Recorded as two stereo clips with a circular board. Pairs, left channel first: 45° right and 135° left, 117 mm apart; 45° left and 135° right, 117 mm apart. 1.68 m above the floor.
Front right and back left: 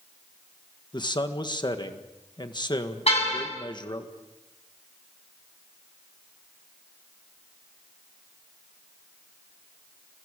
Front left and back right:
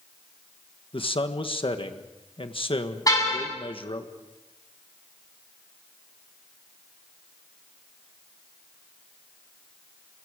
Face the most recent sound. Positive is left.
turn(degrees=-15)